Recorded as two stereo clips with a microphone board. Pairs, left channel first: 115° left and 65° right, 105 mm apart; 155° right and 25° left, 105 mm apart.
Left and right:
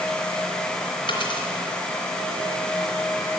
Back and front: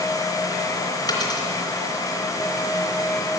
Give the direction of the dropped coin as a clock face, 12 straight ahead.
7 o'clock.